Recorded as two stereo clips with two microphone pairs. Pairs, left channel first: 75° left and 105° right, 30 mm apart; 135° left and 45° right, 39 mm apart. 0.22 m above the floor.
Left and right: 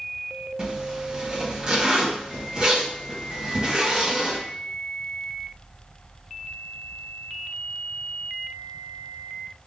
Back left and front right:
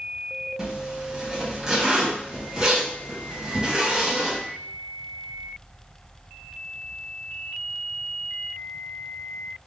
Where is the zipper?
105° right, 1.6 m.